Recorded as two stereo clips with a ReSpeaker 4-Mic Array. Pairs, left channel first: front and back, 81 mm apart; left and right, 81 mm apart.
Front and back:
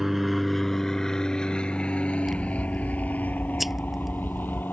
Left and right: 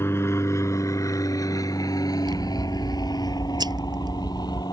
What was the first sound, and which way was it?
An aircraft, 95° left.